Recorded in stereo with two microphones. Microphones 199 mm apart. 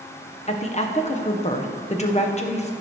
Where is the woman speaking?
35° left (ahead or behind), 1.0 m.